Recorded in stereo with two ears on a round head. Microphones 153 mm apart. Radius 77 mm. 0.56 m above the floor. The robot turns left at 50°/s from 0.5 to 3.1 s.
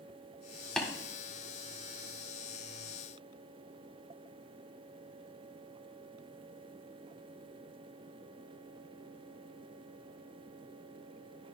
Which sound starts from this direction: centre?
Tapping, at 0.8 s.